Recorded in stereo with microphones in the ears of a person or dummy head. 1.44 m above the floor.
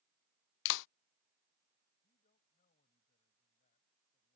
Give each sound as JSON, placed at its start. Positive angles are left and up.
{"t": 0.7, "sound": "a clap", "side_deg": 70}
{"t": 2.0, "sound": "a man speaking", "side_deg": 45}